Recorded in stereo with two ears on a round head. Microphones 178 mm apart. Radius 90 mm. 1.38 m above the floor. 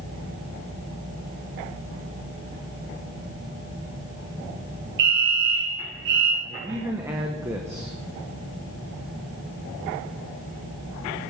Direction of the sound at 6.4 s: 15° right (ahead or behind).